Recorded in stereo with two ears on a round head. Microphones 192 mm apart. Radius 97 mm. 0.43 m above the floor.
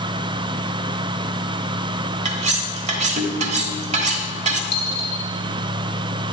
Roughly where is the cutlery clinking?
Right.